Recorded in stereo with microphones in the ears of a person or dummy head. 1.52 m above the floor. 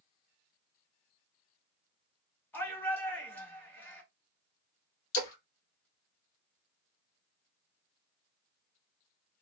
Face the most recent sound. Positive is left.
turn(degrees=65)  # may be behind; listen again after turning